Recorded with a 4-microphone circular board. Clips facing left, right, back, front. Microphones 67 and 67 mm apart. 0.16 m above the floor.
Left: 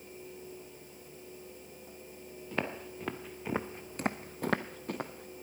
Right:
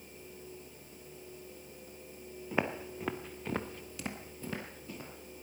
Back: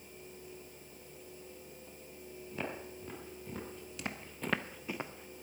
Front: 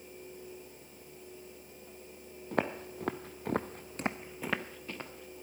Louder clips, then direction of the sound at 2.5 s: Right 2 dB, front 8 dB; 15° right.